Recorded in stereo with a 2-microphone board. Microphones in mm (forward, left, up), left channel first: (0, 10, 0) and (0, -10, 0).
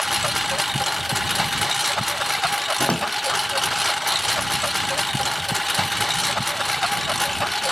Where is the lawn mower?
5° right (ahead or behind); by 7.7 s 5° left (ahead or behind).